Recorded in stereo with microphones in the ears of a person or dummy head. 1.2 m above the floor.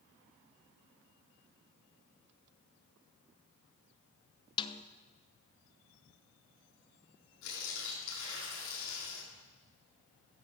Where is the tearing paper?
80° left, 6.5 m.